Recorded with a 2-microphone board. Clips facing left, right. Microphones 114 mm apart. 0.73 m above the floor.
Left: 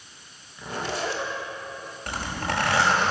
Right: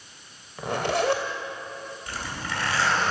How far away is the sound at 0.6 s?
About 2.5 m.